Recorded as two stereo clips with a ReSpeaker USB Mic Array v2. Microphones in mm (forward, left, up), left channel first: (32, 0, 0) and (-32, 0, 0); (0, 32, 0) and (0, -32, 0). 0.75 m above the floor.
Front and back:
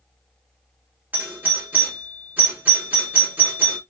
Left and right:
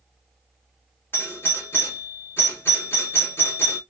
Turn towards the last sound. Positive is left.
turn(degrees=125)